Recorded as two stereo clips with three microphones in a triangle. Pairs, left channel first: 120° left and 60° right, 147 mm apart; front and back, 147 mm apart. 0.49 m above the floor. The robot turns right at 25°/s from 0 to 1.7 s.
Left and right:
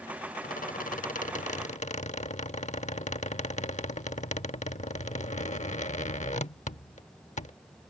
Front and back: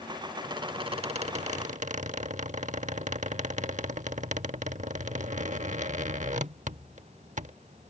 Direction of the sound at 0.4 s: 120° left.